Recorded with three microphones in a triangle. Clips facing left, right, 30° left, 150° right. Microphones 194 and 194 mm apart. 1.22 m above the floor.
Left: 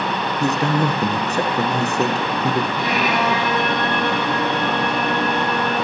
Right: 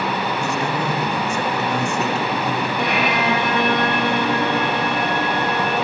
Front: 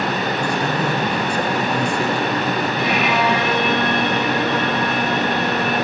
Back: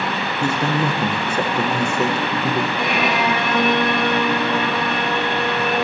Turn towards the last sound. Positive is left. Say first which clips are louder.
# even, front 1 dB
turn(degrees=-115)